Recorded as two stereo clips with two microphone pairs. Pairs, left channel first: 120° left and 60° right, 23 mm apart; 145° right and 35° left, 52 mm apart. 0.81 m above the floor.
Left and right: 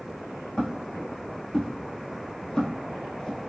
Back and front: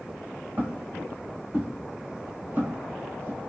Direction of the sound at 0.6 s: 80° left.